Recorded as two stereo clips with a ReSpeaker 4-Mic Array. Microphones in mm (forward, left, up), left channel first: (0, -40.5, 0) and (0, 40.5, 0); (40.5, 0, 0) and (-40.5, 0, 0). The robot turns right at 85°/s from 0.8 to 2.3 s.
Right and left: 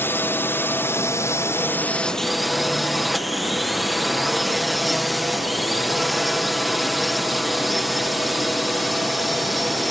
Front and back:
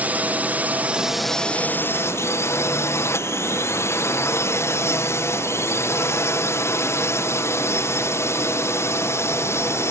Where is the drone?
125° right; by 9.9 s straight ahead.